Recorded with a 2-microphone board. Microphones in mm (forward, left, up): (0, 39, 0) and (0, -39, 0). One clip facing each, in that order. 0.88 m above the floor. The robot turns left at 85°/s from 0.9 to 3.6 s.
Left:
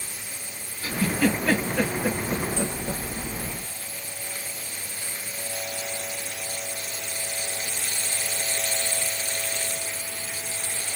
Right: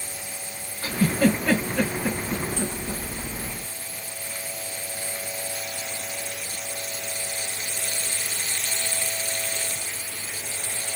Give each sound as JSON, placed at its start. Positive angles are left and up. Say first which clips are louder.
{"t": 0.8, "sound": "a giggle", "louder": "right 2 dB", "side_deg": -75, "distance_m": 3.0}